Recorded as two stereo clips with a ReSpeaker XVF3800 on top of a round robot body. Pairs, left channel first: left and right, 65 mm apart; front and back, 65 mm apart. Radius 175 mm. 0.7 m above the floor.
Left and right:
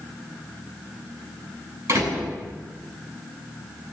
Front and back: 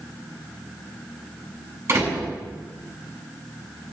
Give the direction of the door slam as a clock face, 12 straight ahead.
4 o'clock.